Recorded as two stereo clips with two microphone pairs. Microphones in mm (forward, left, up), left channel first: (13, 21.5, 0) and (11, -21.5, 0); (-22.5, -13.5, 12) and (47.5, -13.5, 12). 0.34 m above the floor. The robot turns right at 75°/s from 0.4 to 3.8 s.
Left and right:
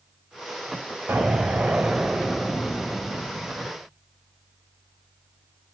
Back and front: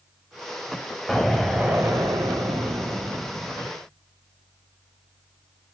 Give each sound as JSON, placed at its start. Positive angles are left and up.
{"t": 1.1, "sound": "an explosion", "azimuth_deg": -95, "distance_m": 1.9}